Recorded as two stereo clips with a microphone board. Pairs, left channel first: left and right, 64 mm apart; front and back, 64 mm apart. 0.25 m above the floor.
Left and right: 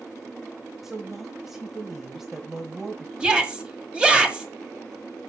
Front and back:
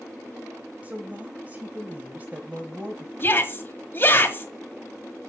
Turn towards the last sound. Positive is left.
turn(degrees=-25)